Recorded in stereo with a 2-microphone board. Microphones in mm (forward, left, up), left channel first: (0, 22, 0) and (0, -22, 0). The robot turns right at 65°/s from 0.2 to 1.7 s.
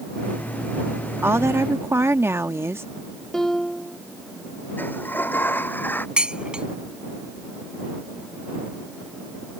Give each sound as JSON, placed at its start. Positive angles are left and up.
{"t": 1.2, "sound": "a woman speaking", "azimuth_deg": -110}
{"t": 3.3, "sound": "a piano", "side_deg": 5}
{"t": 4.8, "sound": "a sliding door", "side_deg": 45}
{"t": 6.2, "sound": "dishes clattering", "side_deg": -25}